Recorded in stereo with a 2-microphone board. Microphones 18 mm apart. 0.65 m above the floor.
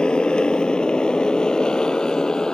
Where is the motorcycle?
65° left (ahead or behind); by 2.5 s 45° left (ahead or behind).